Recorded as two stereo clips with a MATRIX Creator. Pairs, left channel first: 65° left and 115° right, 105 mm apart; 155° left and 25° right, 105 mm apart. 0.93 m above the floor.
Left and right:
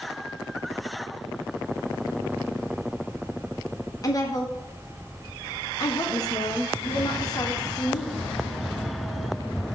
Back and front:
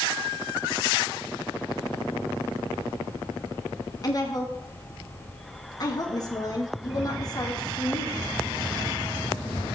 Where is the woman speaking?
115° left, 1.5 m.